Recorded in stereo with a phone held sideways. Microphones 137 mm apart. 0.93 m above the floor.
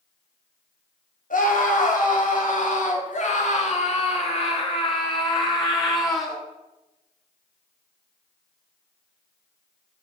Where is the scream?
75° left (ahead or behind), 3 m; by 6.4 s 20° left (ahead or behind), 2.5 m.